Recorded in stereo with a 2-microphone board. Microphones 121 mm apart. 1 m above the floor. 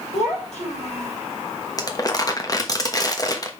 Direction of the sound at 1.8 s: 30° left (ahead or behind).